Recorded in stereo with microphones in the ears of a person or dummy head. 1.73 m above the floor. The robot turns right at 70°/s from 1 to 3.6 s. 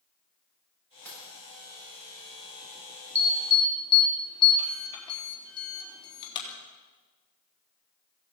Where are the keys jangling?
15° left (ahead or behind), 7 m; by 1.3 s 5° right (ahead or behind), 7 m.